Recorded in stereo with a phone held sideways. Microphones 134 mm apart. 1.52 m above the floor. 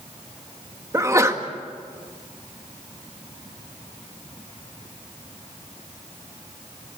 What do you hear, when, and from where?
0.9 s a sneeze: 25° right (ahead or behind), 2.0 m